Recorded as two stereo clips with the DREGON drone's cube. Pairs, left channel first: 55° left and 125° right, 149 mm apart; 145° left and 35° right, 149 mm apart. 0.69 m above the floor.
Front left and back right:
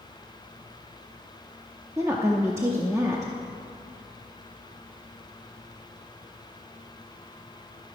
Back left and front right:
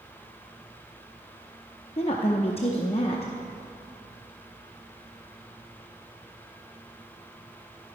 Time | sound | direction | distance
2.0 | a woman speaking | 170° left | 0.6 m